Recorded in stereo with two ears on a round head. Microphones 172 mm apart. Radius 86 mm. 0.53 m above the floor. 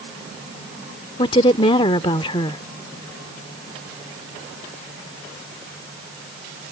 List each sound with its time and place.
1.2 s a woman speaking: 30° left (ahead or behind)